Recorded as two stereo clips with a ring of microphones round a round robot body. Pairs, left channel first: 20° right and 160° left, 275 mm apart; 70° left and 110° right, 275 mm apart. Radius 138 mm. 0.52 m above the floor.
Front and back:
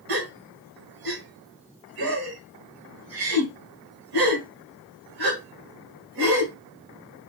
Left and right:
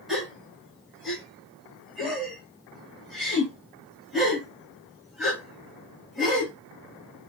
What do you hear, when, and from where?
0.1 s a gasp: 160° left, 1.3 m